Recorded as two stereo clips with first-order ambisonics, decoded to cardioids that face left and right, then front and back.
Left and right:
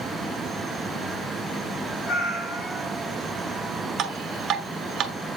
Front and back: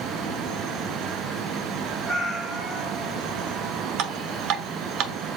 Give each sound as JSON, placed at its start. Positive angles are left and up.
{"t": 2.0, "sound": "a cat meowing", "azimuth_deg": 115, "distance_m": 3.5}
{"t": 4.0, "sound": "dripping", "azimuth_deg": -150, "distance_m": 0.7}